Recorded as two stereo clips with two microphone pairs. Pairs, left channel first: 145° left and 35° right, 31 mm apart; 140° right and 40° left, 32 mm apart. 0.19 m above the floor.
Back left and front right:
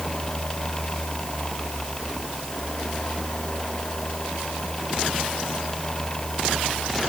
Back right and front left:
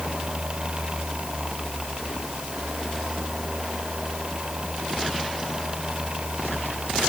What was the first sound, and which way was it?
Only background noise.